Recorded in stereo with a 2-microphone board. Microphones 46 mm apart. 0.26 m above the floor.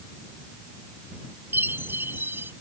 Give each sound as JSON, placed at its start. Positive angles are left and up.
{"t": 1.5, "sound": "a chime", "side_deg": -55}